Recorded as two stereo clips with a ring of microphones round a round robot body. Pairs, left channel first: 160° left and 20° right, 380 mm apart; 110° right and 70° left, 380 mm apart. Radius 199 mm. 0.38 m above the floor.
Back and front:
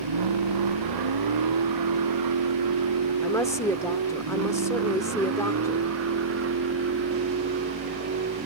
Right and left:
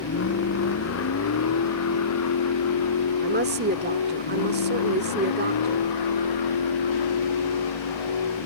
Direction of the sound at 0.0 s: 55° right.